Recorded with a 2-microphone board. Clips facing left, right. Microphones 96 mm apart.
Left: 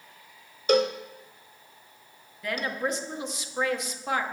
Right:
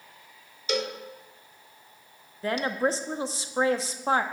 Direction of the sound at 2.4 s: 35° right (ahead or behind).